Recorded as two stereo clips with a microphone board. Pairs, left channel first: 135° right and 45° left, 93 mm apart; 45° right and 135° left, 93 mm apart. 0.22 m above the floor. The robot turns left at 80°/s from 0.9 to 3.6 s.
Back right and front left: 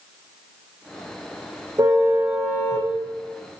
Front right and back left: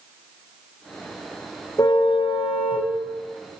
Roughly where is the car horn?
Ahead.